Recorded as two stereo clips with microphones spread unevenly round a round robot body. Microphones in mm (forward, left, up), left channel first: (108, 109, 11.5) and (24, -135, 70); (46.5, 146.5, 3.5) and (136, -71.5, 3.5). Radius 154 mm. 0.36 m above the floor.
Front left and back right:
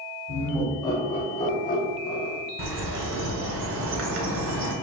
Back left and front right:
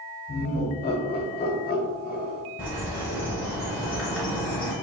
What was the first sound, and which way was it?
Laughter, 145° left.